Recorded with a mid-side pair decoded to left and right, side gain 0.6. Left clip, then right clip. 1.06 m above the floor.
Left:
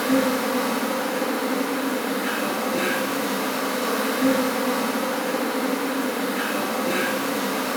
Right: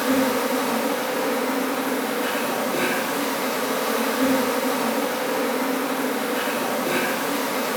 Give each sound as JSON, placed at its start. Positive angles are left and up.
{"t": 0.0, "sound": "an insect", "azimuth_deg": -60, "distance_m": 1.2}